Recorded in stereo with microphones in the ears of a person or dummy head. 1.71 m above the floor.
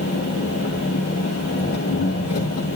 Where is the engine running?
40° left (ahead or behind), 2 m.